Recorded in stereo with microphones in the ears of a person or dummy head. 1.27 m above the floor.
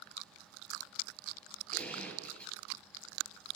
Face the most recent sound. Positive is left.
turn(degrees=5)  # may be behind; listen again after turning